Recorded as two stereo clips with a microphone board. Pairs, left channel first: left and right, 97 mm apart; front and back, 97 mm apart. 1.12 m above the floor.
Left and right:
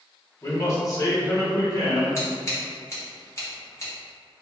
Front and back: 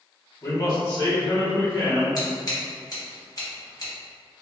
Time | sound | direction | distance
0.4 | a man speaking | 45° left | 1.1 m
2.1 | scissors | 40° left | 1.1 m